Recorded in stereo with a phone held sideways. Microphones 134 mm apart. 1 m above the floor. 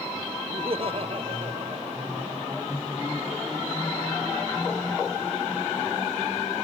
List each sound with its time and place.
0.5 s laughter: 45° right (ahead or behind)